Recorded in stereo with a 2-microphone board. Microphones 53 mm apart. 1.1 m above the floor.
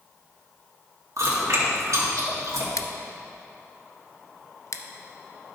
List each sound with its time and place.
1.2 s chewing: 75° right (ahead or behind), 2 m
2.8 s scissors: 70° left (ahead or behind), 0.5 m